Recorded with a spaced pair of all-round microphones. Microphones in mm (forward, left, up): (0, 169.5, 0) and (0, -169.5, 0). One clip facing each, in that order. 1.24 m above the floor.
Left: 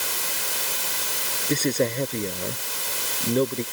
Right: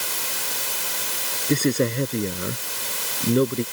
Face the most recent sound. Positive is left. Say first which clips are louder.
# right 3 dB
turn(degrees=-20)  # may be behind; listen again after turning